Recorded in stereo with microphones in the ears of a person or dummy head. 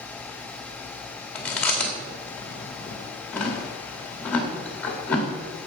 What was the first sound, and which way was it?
Chewing, centre (ahead or behind).